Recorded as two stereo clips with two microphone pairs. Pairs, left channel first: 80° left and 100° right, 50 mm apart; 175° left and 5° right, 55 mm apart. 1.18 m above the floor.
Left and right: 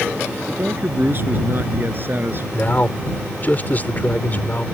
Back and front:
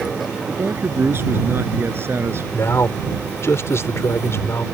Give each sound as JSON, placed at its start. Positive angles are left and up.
{"t": 0.5, "sound": "a man speaking", "azimuth_deg": -55}
{"t": 2.5, "sound": "a man speaking", "azimuth_deg": 135}